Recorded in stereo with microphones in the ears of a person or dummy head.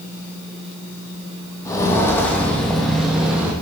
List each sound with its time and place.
1.6 s footsteps: 15° left (ahead or behind), 3 m; by 3.5 s 5° right (ahead or behind), 3 m